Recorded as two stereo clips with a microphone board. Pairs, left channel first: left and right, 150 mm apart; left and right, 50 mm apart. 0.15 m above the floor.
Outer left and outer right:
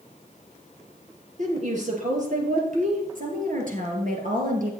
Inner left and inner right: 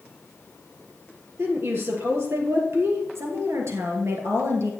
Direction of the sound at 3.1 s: 65° right (ahead or behind).